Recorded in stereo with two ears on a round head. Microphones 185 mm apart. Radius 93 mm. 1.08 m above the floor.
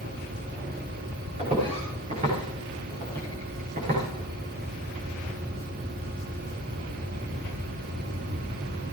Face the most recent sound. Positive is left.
turn(degrees=-40)  # may be behind; listen again after turning